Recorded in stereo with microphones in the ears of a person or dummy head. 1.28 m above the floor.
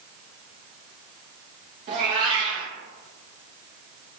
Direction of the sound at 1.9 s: 30° right (ahead or behind).